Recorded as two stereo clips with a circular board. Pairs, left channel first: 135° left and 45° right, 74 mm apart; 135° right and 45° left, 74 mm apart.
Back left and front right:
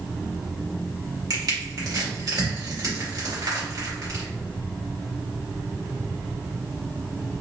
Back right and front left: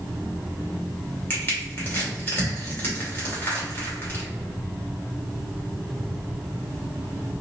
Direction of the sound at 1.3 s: 75° right.